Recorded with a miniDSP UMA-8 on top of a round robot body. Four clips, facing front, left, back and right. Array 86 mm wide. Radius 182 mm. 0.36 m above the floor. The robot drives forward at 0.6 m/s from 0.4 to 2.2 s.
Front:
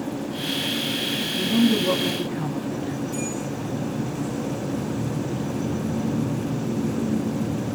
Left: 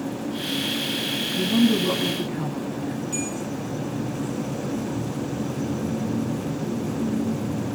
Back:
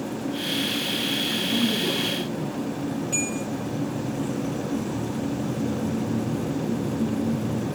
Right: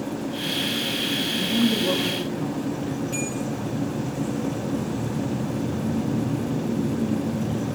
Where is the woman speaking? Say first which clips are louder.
Left 4 dB, front 7 dB; 80° left, 6.5 m; by 3.0 s 85° left, 6.5 m.